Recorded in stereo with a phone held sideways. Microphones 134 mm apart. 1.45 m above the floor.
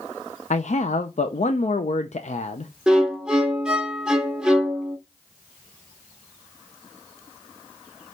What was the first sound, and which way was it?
A man speaking, 60° left (ahead or behind).